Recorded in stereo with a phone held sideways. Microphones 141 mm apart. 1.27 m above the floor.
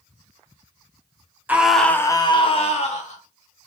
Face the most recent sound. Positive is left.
turn(degrees=55)  # may be behind; listen again after turning